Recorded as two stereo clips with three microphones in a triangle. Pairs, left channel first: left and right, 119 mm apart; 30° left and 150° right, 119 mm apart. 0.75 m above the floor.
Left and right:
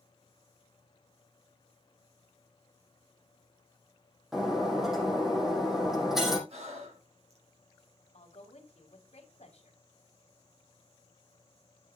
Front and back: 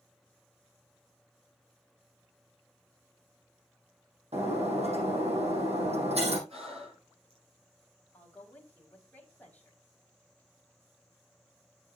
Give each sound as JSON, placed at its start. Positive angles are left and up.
{"t": 4.3, "sound": "breaking glass", "azimuth_deg": -175, "distance_m": 5.0}
{"t": 6.5, "sound": "breathing", "azimuth_deg": -120, "distance_m": 7.0}
{"t": 8.1, "sound": "a woman speaking", "azimuth_deg": 110, "distance_m": 3.0}